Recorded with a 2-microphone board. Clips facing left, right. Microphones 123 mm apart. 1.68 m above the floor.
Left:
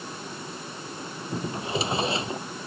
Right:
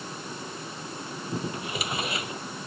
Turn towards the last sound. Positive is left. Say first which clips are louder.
# left 5 dB
turn(degrees=30)  # may be behind; listen again after turning